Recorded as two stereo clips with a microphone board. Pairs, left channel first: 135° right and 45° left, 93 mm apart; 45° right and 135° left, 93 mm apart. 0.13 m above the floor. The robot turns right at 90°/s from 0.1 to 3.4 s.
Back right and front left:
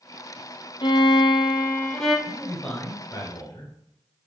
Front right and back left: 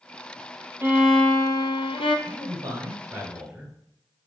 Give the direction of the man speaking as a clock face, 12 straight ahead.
8 o'clock.